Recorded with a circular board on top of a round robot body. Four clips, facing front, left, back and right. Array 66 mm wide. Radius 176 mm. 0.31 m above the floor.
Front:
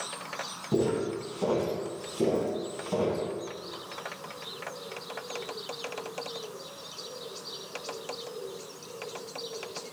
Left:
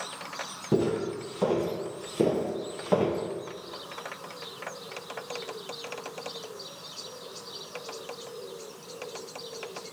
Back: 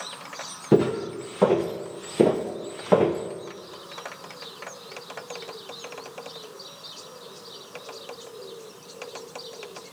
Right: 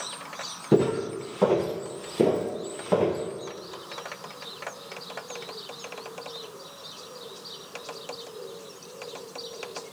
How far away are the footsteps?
About 4 m.